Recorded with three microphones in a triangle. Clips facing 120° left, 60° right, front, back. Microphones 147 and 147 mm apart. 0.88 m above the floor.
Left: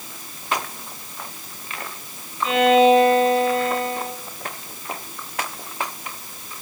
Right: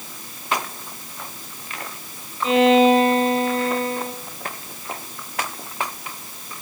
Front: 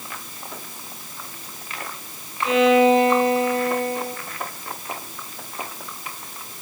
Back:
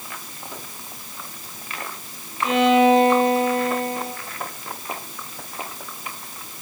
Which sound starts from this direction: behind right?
A violin, at 2.4 s.